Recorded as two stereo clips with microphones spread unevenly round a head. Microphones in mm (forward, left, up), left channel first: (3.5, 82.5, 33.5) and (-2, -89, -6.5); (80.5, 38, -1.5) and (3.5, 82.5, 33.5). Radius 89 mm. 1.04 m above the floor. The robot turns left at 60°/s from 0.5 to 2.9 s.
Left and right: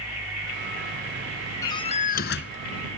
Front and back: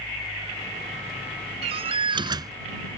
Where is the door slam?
160° left; by 2.6 s 105° left.